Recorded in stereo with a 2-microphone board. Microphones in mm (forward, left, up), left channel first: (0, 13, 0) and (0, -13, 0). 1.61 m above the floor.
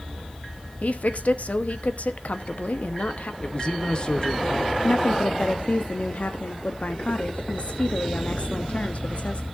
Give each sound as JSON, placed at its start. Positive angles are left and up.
{"t": 0.8, "sound": "a woman speaking", "side_deg": 65, "distance_m": 0.8}
{"t": 3.4, "sound": "a man speaking", "side_deg": 35, "distance_m": 0.8}
{"t": 4.8, "sound": "a woman speaking", "side_deg": 55, "distance_m": 0.7}